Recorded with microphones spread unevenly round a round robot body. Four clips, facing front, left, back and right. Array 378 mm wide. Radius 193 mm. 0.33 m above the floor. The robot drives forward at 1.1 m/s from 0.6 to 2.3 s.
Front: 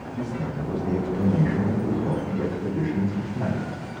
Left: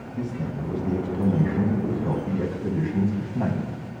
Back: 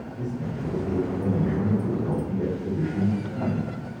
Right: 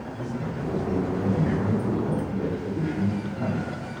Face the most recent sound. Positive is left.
turn(degrees=85)